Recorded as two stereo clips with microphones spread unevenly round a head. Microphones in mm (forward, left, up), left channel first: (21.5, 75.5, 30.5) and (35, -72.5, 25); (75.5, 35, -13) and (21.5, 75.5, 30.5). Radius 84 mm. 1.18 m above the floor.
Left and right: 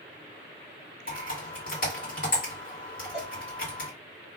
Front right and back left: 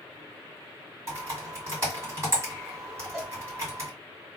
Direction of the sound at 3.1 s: 175° right.